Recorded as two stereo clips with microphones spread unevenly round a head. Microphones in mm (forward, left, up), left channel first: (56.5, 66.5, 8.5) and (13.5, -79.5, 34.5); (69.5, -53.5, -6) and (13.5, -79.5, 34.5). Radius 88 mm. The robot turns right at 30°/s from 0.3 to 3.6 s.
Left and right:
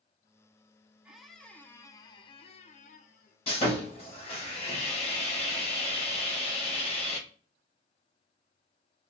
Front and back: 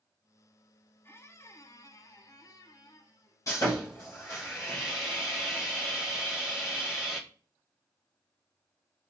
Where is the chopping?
I don't hear chopping.